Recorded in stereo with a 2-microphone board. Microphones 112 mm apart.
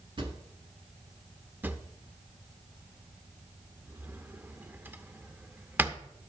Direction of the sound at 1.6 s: 20° right (ahead or behind).